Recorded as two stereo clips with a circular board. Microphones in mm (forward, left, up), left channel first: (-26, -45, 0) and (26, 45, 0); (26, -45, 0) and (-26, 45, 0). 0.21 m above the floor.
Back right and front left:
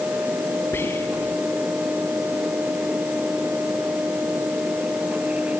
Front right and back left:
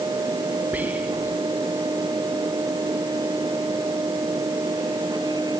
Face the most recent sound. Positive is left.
turn(degrees=-175)